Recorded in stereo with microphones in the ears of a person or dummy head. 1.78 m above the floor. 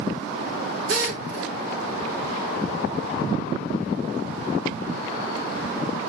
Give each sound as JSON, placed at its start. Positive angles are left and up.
{"t": 0.9, "sound": "a drill", "side_deg": -65, "distance_m": 6.0}